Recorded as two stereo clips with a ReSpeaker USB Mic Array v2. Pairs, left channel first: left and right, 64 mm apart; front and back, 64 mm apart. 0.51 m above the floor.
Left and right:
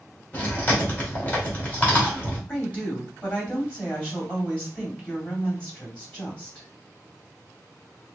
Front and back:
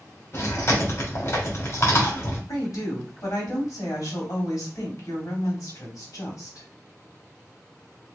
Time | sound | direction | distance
0.3 | chewing | 25° left | 2 m
2.5 | a woman speaking | 20° left | 2.5 m